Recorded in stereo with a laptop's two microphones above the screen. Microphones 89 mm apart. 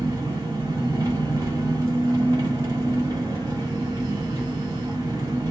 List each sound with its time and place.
0.0 s an engine running: 40° right (ahead or behind), 1.2 m